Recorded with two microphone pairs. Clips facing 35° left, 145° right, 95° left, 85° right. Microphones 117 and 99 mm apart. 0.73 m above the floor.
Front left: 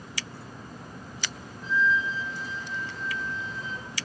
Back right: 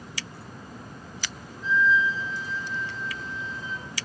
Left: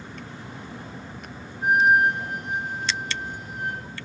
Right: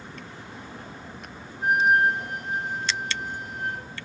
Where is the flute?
20° left, 1.3 m.